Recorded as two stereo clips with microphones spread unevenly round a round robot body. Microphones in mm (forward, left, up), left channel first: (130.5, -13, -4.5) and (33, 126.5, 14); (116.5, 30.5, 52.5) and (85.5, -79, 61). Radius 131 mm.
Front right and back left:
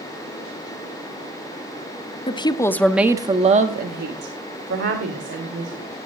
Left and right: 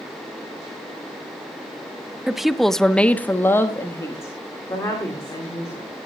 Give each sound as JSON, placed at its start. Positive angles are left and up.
{"t": 2.3, "sound": "a woman speaking", "azimuth_deg": -15, "distance_m": 1.2}